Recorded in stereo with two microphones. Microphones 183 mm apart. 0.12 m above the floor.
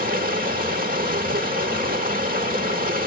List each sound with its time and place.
0.0 s running water: 50° right (ahead or behind), 1.8 m